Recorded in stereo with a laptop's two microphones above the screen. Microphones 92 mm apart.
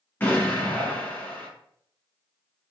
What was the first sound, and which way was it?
An explosion, 20° left (ahead or behind).